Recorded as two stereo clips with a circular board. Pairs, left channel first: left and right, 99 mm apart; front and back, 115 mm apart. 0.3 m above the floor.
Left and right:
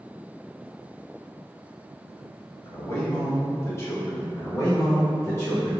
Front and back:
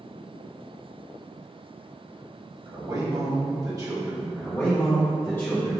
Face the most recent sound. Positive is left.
turn(degrees=55)